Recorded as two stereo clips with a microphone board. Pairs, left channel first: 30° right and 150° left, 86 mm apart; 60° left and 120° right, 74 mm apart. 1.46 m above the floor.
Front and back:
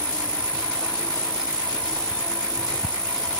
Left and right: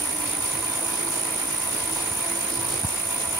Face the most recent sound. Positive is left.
turn(degrees=45)